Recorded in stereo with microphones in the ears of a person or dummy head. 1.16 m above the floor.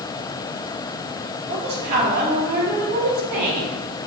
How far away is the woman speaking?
About 2.5 m.